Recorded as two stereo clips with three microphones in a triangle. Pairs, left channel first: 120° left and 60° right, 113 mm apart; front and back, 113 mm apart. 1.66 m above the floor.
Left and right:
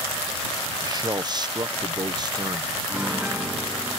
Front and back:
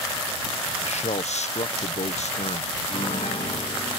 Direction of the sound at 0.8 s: 10° right.